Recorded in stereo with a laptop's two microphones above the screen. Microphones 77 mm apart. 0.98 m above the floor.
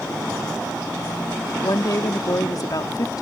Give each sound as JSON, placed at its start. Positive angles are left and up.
{"t": 1.6, "sound": "a woman speaking", "side_deg": 55}